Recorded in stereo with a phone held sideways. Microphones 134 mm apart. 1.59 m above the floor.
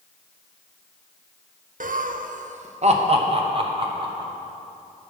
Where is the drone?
I don't hear a drone.